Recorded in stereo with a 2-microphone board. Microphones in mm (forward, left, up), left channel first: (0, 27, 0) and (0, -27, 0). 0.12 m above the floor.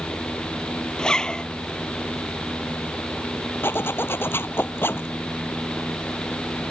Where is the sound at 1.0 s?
15° left (ahead or behind).